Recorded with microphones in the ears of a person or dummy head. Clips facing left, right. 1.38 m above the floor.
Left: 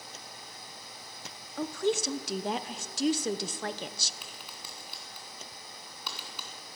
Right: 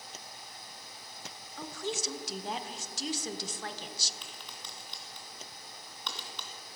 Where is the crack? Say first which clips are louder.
Left 1 dB; 5° left (ahead or behind), 2.5 m.